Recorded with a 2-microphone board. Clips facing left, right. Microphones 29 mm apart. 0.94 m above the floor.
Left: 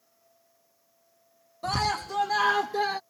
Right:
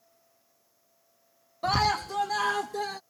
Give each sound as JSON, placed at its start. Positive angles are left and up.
{"t": 1.6, "sound": "a scream", "side_deg": -15}